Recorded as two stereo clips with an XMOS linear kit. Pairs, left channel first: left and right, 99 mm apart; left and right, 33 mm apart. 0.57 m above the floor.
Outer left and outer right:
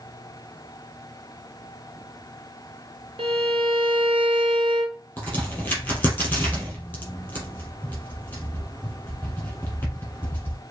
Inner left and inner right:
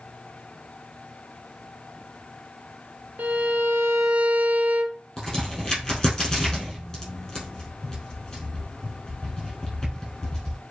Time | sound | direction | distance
3.2 | a violin | 65° right (ahead or behind) | 0.9 m
5.2 | a crack | 20° left (ahead or behind) | 3 m